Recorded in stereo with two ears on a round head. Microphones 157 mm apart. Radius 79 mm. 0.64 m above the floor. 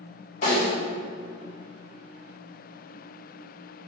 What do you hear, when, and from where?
0.4 s a snare drum: 40° left (ahead or behind), 1.5 m